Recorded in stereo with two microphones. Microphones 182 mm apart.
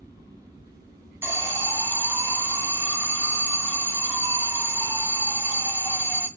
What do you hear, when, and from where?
1.2 s an alarm: 15° right (ahead or behind), 0.9 m